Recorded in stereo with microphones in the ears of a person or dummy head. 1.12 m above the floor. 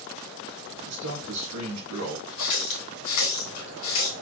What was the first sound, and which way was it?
A man speaking, 70° right (ahead or behind).